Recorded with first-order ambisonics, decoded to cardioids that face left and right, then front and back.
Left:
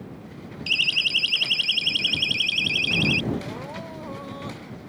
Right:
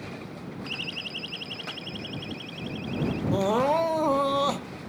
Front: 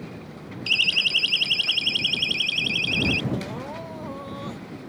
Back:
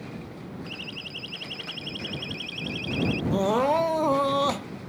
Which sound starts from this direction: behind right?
Crying, at 3.3 s.